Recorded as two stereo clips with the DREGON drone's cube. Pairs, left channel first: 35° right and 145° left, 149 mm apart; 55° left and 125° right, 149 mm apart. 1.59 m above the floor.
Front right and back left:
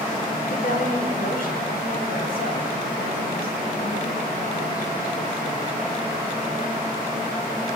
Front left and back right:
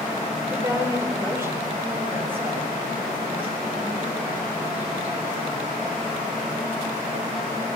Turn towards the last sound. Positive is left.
turn(degrees=-45)